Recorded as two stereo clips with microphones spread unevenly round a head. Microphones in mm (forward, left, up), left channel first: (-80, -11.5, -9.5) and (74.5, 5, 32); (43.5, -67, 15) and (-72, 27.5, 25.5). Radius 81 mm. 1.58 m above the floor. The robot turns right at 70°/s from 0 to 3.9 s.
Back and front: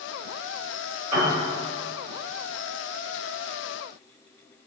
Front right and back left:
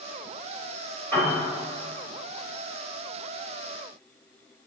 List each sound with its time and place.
1.1 s a piano: 45° left, 1.9 m; by 1.3 s 60° left, 1.9 m